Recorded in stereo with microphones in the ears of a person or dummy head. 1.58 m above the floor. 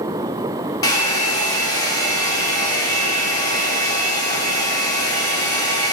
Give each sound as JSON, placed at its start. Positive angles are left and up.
{"t": 0.8, "sound": "a hair dryer", "side_deg": 20, "distance_m": 3.0}